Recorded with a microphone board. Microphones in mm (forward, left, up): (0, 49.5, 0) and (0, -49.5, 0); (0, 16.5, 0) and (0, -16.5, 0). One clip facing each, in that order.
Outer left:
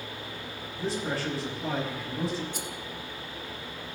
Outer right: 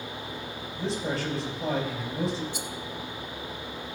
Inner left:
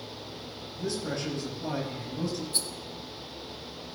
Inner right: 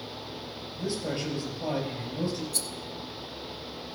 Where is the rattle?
45° left (ahead or behind), 0.8 m.